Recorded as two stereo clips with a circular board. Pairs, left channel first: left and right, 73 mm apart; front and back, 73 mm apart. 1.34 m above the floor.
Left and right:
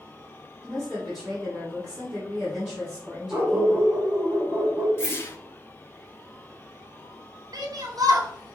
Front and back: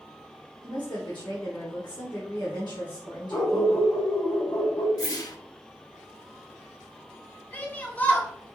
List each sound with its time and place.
0.6 s a woman speaking: 5° right, 1.9 m
3.3 s a dog barking: 25° right, 1.8 m
5.0 s a whoosh: 30° left, 0.7 m
7.5 s a shout: 65° right, 0.9 m